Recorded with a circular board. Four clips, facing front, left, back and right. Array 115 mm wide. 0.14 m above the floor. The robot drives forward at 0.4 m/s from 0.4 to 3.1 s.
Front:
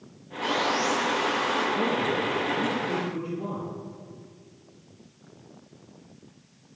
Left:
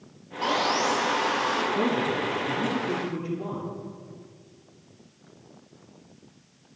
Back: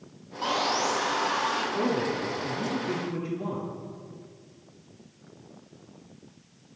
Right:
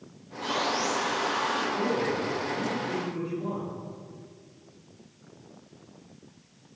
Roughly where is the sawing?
Behind left.